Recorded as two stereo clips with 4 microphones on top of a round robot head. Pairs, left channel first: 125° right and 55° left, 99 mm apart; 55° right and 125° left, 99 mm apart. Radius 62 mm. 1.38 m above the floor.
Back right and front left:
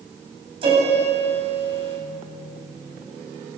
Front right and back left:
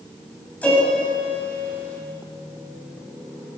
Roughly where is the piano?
Ahead.